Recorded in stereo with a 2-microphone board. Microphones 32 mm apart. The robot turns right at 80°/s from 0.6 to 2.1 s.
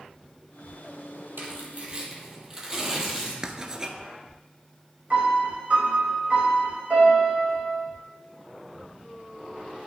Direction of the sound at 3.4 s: 20° right (ahead or behind).